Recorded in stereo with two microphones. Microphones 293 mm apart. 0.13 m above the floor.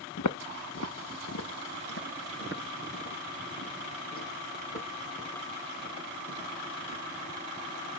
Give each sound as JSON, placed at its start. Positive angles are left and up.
{"t": 0.2, "sound": "footsteps", "side_deg": 70, "distance_m": 0.7}